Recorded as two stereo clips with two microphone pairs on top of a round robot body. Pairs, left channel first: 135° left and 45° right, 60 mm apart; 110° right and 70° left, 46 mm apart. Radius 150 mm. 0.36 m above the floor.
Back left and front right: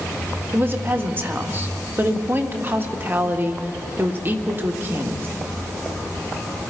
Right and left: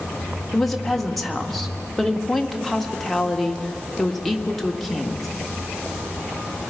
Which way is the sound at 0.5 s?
25° right.